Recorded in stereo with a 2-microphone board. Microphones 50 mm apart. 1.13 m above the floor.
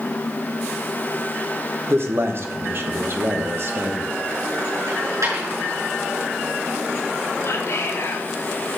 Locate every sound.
1.9 s a man speaking: 55° right (ahead or behind), 1.2 m
4.9 s a dropped coin: 80° right, 6 m
7.4 s whispering: 60° left (ahead or behind), 1.3 m